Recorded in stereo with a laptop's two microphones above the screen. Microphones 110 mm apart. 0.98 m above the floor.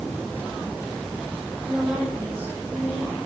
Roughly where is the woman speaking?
Centre.